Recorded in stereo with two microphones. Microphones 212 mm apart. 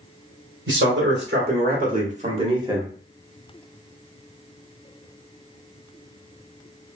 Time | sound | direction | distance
0.7 | a man speaking | 65° right (ahead or behind) | 1.7 m